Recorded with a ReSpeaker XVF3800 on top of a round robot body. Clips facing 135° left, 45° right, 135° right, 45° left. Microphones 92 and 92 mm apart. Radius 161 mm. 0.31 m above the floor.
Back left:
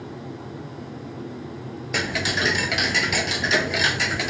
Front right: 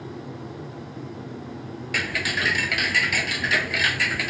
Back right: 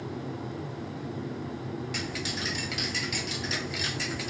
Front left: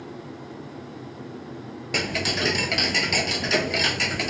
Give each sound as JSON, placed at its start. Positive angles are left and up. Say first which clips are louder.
{"t": 1.9, "sound": "ticking", "louder": "back left 2 dB, front left 7 dB", "azimuth_deg": 70}